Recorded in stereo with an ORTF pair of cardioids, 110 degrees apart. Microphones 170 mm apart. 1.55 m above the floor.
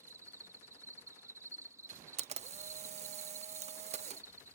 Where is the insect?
15° right.